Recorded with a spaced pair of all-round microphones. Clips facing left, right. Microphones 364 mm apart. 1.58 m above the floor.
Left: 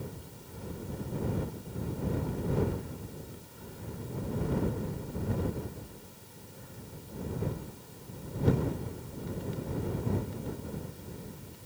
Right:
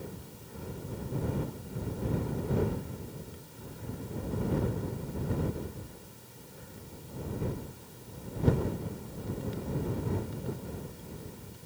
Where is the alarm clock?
No alarm clock in this recording.